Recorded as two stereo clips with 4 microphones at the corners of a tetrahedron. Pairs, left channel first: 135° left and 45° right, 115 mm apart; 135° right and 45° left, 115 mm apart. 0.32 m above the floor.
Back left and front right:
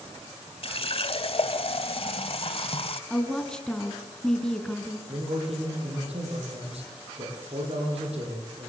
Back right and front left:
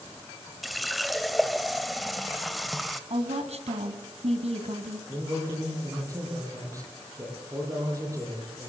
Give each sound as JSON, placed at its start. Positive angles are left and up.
{"t": 0.6, "sound": "a running tap", "azimuth_deg": 135, "distance_m": 0.9}
{"t": 3.1, "sound": "a woman speaking", "azimuth_deg": 50, "distance_m": 2.5}
{"t": 5.1, "sound": "a man speaking", "azimuth_deg": -15, "distance_m": 9.5}